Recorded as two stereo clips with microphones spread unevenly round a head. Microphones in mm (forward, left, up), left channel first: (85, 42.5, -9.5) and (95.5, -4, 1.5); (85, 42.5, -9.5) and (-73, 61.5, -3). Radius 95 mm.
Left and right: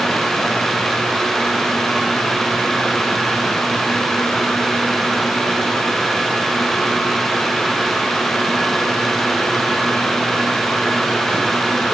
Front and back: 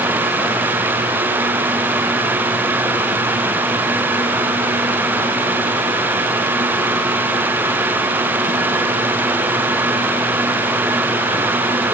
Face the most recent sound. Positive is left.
No sound to turn to.